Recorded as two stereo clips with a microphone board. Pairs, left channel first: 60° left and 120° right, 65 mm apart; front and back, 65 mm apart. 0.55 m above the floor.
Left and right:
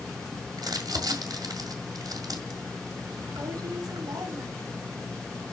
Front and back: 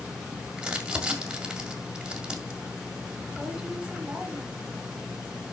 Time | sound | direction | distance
0.6 | crumpling | 100° right | 2 m